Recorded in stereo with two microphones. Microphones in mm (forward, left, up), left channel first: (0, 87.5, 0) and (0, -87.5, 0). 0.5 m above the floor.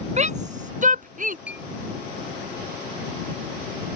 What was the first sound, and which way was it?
A shout, 40° right (ahead or behind).